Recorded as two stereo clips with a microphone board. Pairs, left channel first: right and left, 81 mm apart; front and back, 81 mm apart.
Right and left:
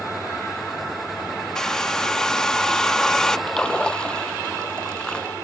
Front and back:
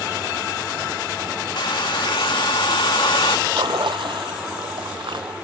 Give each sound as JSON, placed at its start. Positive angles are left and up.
{"t": 1.6, "sound": "a hair dryer", "azimuth_deg": -10}
{"t": 3.5, "sound": "a splash", "azimuth_deg": -170}